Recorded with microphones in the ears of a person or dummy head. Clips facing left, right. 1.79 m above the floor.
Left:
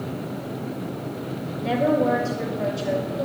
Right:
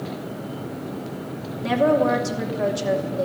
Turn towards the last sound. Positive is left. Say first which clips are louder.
# right 2 dB
turn(degrees=-80)